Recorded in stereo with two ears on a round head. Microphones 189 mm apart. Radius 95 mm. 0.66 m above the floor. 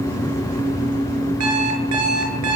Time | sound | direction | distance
1.4 | an alarm clock | 85° right | 6.5 m